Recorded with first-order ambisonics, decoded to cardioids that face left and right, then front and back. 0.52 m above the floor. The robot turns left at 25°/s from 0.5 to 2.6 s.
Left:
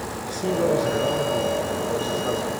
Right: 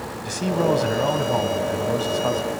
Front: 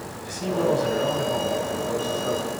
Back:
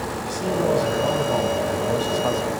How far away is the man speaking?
About 4 m.